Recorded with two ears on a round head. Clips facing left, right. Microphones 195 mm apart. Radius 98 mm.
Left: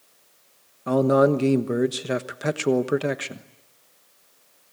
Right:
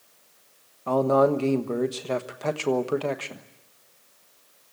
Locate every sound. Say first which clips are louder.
0.9 s a man speaking: left 2 dB; 20° left (ahead or behind), 1.2 m